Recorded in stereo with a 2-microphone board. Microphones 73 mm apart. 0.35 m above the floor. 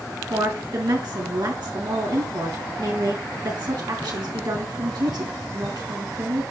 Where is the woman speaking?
75° right (ahead or behind), 4 m.